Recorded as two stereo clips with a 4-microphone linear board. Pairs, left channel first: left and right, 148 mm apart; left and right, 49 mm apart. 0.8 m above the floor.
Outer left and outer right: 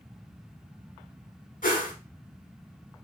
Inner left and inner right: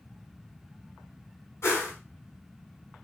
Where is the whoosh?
60° left (ahead or behind), 1.2 m.